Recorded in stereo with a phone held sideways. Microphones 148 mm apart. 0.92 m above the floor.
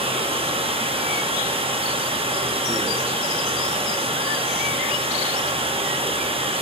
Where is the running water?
35° right (ahead or behind), 0.8 m.